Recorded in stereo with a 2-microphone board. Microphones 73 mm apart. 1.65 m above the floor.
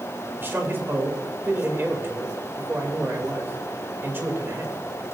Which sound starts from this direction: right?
A man speaking, at 0.4 s.